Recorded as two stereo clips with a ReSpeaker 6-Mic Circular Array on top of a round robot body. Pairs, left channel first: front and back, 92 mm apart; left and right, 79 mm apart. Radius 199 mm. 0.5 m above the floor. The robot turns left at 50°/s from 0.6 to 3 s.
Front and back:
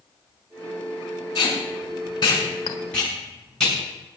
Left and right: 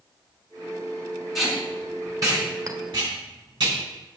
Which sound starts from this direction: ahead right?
A clink, at 2.7 s.